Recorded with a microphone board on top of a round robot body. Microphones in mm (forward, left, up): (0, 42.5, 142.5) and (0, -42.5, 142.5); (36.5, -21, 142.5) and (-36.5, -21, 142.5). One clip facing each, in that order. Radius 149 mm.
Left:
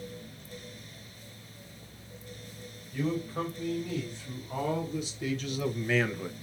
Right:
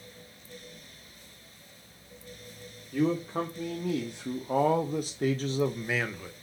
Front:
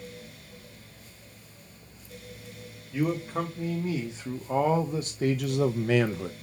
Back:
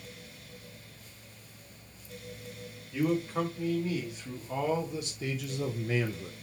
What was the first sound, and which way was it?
A man speaking, 75° right.